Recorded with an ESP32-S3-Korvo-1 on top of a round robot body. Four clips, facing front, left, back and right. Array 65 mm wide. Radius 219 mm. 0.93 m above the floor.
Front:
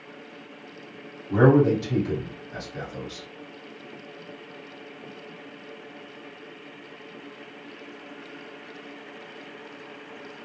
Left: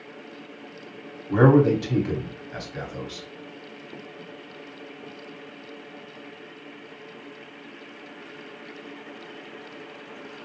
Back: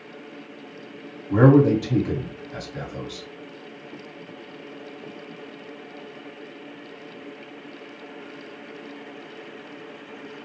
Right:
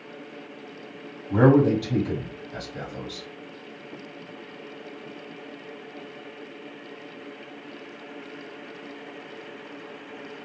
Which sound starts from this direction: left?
A man speaking, at 1.3 s.